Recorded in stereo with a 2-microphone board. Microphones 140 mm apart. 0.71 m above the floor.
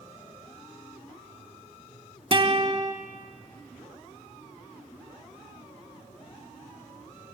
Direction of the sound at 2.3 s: 40° right (ahead or behind).